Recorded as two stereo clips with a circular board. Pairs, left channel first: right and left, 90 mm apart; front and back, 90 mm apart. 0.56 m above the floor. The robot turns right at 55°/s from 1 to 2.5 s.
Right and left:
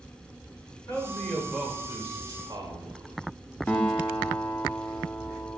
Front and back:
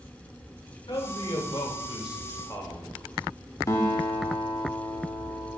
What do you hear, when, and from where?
0.9 s a man speaking: 25° right, 1.9 m; by 3.1 s 55° left, 1.9 m
3.7 s a guitar: 25° right, 1.1 m